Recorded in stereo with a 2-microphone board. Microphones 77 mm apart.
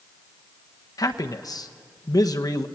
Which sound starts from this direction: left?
A man speaking, at 1.0 s.